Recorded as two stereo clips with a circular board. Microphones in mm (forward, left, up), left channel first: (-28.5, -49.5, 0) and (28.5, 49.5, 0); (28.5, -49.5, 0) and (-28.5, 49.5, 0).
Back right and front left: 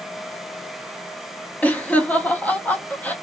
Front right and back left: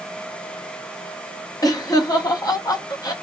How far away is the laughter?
About 0.7 m.